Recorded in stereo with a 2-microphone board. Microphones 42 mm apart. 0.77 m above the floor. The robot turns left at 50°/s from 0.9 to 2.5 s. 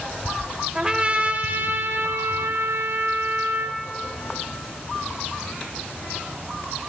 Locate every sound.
0.8 s a trumpet: 25° right, 0.9 m; by 3.8 s 105° right, 0.9 m